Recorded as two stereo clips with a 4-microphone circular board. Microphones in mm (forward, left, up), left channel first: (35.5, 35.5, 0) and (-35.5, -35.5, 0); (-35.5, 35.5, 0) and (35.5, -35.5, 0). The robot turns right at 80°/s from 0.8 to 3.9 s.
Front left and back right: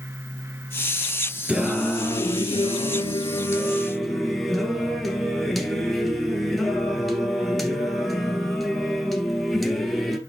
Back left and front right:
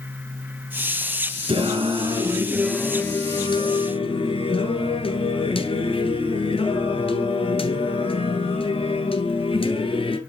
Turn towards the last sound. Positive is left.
turn(degrees=135)